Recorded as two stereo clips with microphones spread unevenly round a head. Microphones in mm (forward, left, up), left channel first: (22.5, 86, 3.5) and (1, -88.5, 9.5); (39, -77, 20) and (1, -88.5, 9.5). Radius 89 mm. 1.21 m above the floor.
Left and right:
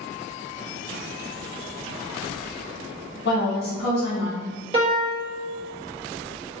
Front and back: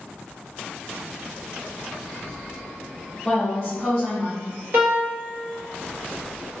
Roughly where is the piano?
Behind.